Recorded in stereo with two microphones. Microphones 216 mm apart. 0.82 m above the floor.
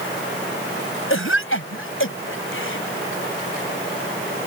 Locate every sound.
1.1 s a cough: 70° left (ahead or behind)